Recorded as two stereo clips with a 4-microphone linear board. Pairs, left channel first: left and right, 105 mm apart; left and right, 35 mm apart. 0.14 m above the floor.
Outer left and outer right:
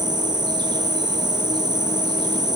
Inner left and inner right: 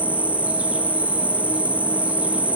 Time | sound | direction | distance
0.0 | an insect | 45° right (ahead or behind) | 0.7 m